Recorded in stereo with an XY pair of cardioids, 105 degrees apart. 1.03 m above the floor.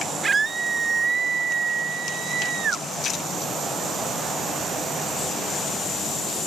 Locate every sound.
0.2 s a scream: 30° right; by 2.9 s 60° right